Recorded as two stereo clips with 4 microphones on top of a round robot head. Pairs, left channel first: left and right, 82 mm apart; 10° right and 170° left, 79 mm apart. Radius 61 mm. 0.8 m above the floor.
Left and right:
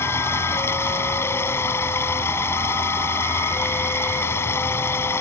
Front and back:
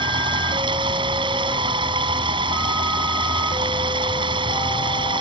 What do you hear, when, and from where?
0.0 s running water: 150° left